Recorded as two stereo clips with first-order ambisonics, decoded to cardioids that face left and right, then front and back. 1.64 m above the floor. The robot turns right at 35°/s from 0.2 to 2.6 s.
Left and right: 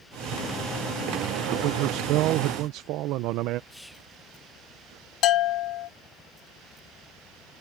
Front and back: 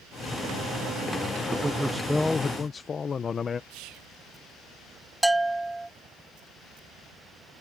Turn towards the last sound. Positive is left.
turn(degrees=95)